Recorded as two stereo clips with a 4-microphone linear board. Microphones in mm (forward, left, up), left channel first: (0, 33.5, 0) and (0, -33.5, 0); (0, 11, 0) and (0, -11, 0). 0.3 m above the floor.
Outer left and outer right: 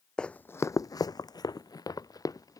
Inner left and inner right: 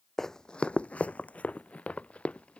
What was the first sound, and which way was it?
Running footsteps, 10° left (ahead or behind).